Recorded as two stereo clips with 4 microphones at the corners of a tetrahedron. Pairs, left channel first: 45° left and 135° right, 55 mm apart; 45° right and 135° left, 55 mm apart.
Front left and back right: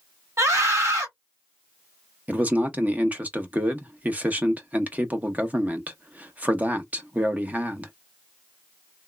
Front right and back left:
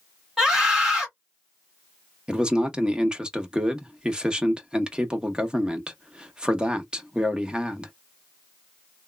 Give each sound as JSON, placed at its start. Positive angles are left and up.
{"t": 0.4, "sound": "a scream", "azimuth_deg": -140, "distance_m": 2.5}
{"t": 2.3, "sound": "a man speaking", "azimuth_deg": -165, "distance_m": 0.7}